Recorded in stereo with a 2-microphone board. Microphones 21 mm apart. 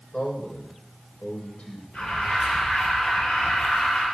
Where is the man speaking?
75° left (ahead or behind), 5.5 m.